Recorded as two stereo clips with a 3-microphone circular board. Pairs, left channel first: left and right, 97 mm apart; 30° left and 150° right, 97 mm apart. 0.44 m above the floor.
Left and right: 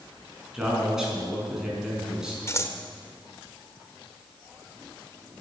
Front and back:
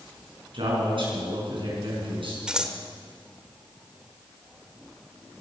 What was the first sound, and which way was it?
A man speaking, 175° right.